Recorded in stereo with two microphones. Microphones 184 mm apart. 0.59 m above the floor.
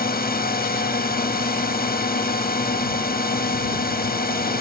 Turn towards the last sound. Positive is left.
turn(degrees=55)  # may be behind; listen again after turning